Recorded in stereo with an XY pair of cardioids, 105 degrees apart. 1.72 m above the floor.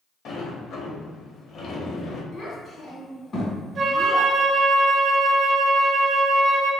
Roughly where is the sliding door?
Ahead left.